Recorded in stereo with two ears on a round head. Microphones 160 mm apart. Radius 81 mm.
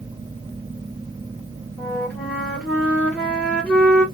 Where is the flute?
10° left (ahead or behind), 1.3 m.